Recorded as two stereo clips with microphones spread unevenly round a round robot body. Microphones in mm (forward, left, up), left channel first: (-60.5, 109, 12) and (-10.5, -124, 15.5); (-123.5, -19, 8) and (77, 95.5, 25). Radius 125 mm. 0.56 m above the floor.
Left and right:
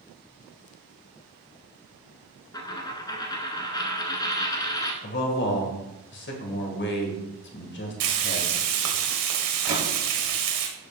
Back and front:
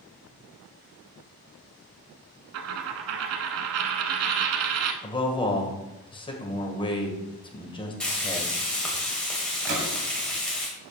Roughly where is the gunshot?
Ahead.